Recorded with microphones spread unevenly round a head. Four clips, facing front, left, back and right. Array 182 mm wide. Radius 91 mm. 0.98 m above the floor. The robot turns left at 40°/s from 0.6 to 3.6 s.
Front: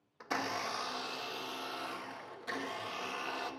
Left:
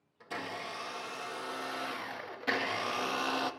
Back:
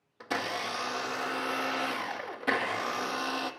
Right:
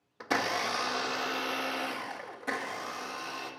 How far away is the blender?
About 1.0 m.